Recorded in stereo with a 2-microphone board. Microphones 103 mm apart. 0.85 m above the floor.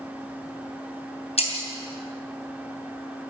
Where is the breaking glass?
85° left, 3.5 m.